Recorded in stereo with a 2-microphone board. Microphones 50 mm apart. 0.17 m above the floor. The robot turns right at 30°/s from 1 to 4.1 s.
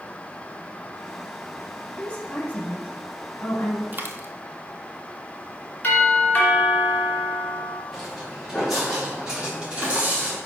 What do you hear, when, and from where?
2.0 s a woman speaking: 15° left (ahead or behind), 1.8 m; by 3.8 s 45° left (ahead or behind), 1.8 m
3.9 s a dropped coin: 40° right (ahead or behind), 0.8 m; by 4.3 s 45° right (ahead or behind), 0.8 m
5.8 s a doorbell: 35° left (ahead or behind), 2 m
7.9 s footsteps: 5° left (ahead or behind), 3 m; by 10.4 s 25° right (ahead or behind), 3 m